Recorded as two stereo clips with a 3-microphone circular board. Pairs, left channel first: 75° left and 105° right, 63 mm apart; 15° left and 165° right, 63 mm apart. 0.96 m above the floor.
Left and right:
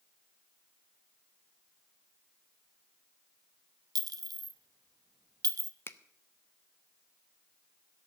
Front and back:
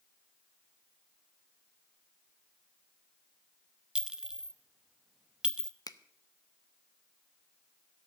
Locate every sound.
4.0 s a clink: 90° right, 0.7 m
5.9 s a finger snap: 25° left, 0.7 m